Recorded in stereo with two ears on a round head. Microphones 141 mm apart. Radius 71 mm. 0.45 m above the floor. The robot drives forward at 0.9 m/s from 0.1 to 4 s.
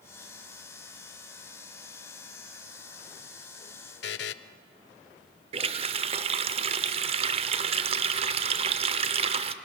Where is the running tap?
35° right (ahead or behind), 0.6 m.